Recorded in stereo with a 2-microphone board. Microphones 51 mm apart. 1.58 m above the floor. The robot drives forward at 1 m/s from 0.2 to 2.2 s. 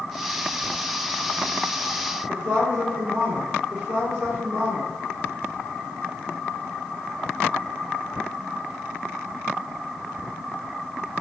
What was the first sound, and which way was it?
A woman speaking, 40° right (ahead or behind).